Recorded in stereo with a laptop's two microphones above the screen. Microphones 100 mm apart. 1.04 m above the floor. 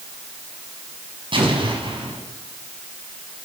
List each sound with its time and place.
1.3 s an explosion: 60° right (ahead or behind), 5 m